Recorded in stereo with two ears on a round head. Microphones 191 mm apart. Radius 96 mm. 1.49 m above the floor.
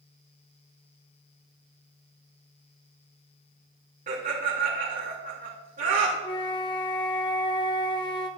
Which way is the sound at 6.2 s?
20° left (ahead or behind).